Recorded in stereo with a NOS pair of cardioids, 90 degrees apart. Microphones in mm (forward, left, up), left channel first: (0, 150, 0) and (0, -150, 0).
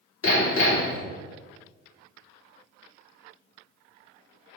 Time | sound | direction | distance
0.2 | hammering | 50° left | 3 m